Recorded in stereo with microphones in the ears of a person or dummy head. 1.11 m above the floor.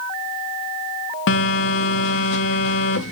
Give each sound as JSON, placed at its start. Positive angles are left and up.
{"t": 1.3, "sound": "a phone buzzing", "side_deg": 65, "distance_m": 0.7}